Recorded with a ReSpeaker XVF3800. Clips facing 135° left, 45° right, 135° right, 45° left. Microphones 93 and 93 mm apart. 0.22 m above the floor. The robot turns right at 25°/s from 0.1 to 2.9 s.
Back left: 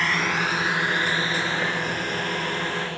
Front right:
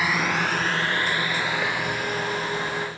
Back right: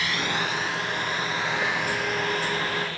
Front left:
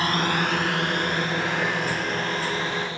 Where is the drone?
35° left; by 3.0 s 115° left.